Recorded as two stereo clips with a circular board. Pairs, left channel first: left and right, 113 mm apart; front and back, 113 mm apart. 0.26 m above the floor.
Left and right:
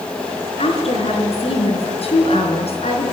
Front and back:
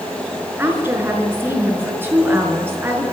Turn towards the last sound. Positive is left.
turn(degrees=110)